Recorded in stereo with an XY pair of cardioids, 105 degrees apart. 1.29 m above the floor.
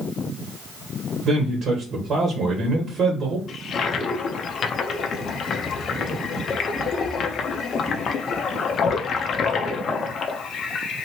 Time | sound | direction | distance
1.2 | a man speaking | 60° right | 1.1 m
3.5 | a toilet flushing | 55° left | 0.5 m